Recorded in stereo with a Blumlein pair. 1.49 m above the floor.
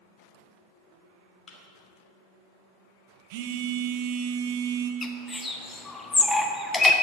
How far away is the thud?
About 2.5 m.